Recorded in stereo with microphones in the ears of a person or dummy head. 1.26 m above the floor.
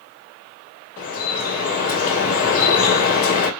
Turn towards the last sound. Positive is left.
turn(degrees=50)  # may be behind; listen again after turning